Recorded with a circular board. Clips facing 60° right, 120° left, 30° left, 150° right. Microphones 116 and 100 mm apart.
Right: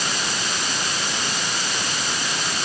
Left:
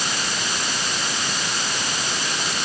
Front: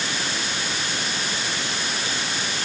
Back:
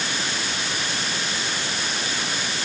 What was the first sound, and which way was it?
Only background noise.